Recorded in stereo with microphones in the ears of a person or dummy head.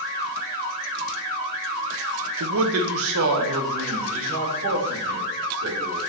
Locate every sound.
2.4 s a man speaking: 65° right (ahead or behind), 0.8 m; by 6.0 s 80° right, 4.5 m